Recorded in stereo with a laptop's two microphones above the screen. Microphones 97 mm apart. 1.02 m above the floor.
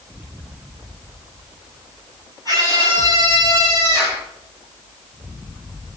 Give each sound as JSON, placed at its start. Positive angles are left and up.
{"t": 2.5, "sound": "a scream", "side_deg": 35, "distance_m": 10.0}